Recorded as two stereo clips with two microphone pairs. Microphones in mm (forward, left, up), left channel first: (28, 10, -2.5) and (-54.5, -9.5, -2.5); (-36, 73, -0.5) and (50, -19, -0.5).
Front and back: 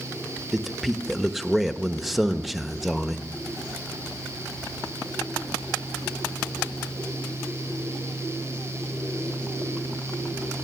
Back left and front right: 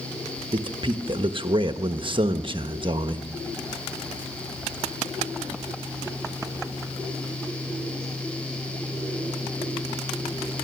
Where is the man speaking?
80° right, 1.1 m.